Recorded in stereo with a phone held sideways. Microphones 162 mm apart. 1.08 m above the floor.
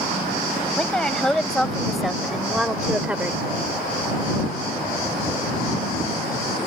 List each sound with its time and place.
0.8 s a woman speaking: 5° left (ahead or behind); by 3.4 s 10° right (ahead or behind)